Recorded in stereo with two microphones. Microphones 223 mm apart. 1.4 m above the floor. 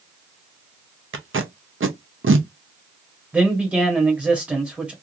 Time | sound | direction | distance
1.1 | tape being pulled | 65° right (ahead or behind) | 0.6 m
3.3 | a man speaking | 5° right (ahead or behind) | 1.0 m